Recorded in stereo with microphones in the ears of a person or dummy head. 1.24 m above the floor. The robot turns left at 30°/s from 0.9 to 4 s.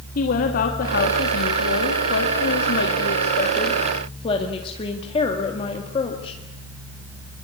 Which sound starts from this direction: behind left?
A woman speaking, at 0.1 s.